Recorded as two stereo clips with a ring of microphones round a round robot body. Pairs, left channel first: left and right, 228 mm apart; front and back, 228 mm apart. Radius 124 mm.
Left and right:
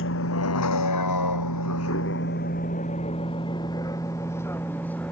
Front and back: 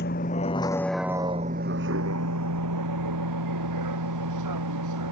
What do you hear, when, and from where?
0.0 s a vehicle: 55° left; by 5.1 s 175° left